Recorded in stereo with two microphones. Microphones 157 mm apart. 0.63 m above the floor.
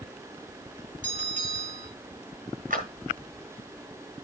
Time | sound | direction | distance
1.0 | a bell | 50° right (ahead or behind) | 4 m
2.7 | a clap | 60° right (ahead or behind) | 5.5 m